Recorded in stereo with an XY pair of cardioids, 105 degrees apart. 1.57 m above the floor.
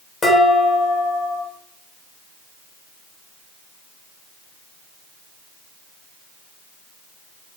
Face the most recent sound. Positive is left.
turn(degrees=35)